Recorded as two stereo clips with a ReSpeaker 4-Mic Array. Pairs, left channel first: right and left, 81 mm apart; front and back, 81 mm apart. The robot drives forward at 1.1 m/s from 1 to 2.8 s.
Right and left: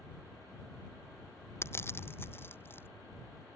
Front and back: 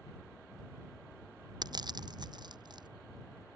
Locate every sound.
1.6 s crushing: 150° right; by 2.9 s 155° right